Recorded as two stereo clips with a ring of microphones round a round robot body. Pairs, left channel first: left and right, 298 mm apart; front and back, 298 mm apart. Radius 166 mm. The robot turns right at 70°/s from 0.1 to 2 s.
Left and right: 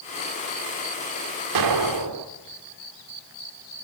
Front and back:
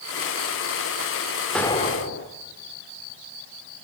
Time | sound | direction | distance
1.6 | an explosion | 90° right | 2 m